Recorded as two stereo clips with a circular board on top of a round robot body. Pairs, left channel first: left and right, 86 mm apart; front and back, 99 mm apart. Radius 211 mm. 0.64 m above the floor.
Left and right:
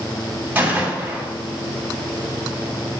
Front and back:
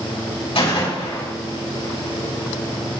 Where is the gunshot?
20° right, 5 m.